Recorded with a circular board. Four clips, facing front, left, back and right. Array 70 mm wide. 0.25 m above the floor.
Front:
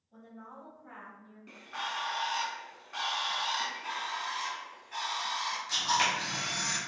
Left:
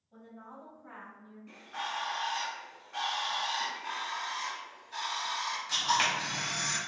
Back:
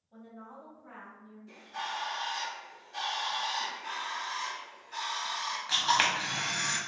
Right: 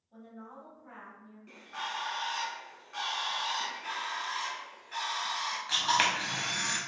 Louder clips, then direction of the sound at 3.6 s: Even, front 1 dB; 75° right.